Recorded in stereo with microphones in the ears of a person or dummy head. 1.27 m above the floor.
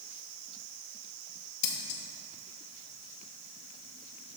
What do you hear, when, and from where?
1.6 s scissors: 40° left (ahead or behind), 1.1 m